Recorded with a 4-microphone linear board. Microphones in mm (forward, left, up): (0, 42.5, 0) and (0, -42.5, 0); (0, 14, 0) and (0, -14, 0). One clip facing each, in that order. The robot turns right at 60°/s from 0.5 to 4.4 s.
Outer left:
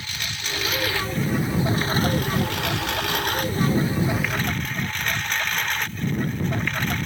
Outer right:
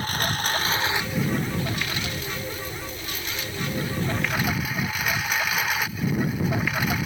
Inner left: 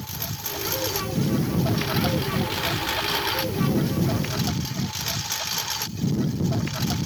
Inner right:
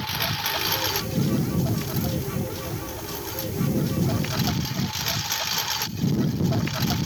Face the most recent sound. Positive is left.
turn(degrees=-175)